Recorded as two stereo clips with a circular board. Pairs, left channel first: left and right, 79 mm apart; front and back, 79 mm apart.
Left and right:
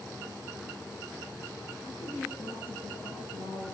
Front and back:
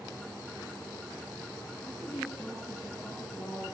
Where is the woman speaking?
90° left, 9 m.